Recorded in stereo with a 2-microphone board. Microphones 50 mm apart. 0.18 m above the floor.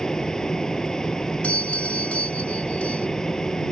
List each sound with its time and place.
0.0 s an aircraft: 15° left (ahead or behind)
1.4 s a doorbell: 30° left (ahead or behind)